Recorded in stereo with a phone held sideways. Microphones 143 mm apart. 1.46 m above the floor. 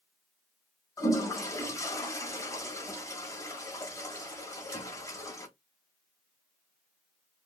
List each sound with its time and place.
1.0 s a toilet flushing: 25° left (ahead or behind), 1.3 m